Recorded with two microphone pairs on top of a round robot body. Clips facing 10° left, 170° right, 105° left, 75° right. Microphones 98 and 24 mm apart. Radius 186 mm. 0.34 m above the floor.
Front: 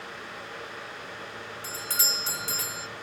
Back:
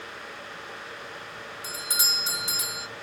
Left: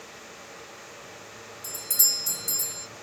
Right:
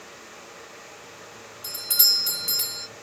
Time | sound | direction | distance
1.6 | a doorbell | 100° right | ?